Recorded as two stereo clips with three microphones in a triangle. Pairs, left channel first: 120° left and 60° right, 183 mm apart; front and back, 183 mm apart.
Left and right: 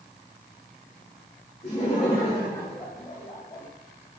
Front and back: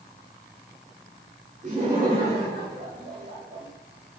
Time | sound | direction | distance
1.6 | laughter | 160° left | 1.8 m